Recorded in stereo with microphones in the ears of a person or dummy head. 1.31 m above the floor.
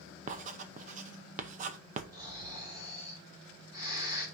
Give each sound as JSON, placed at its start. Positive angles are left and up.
{"t": 0.3, "sound": "writing", "side_deg": -45, "distance_m": 0.7}
{"t": 2.1, "sound": "snoring", "side_deg": -15, "distance_m": 5.5}